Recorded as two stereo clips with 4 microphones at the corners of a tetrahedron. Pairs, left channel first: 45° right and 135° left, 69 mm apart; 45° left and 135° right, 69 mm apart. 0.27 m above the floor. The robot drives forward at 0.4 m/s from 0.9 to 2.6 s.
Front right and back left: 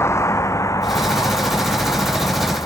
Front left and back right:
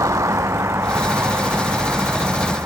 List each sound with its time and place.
0.0 s a vehicle: 95° right; by 2.7 s 80° right